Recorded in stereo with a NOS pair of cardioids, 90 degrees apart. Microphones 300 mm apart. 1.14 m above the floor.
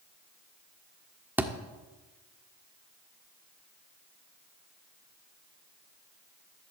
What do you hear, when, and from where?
1.4 s a thud: 5° right, 1.5 m